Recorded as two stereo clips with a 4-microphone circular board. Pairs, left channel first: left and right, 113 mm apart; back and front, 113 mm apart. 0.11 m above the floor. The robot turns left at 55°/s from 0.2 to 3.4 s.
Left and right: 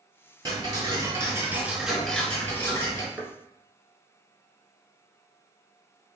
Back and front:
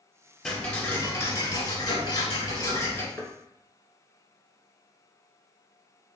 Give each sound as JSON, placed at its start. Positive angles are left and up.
{"t": 0.5, "sound": "ticking", "azimuth_deg": -95, "distance_m": 0.9}
{"t": 3.2, "sound": "knocking", "azimuth_deg": -160, "distance_m": 0.9}